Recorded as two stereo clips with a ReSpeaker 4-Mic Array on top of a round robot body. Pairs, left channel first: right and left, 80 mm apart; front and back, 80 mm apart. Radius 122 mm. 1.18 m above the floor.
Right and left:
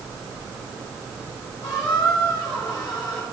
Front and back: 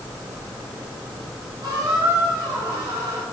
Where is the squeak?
135° right, 4.5 m.